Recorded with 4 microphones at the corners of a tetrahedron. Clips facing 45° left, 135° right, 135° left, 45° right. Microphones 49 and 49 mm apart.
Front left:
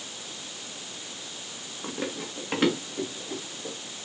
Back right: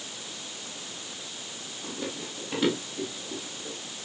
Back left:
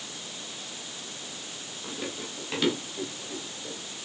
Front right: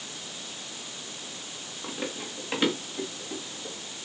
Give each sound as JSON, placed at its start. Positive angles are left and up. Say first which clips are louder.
{"t": 1.8, "sound": "running footsteps", "louder": "front left 3 dB, front right 2 dB", "azimuth_deg": 20, "distance_m": 7.0}